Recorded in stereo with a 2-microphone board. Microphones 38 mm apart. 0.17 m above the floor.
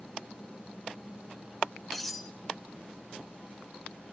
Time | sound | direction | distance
1.9 | cutlery clinking | 5° left (ahead or behind) | 1.0 m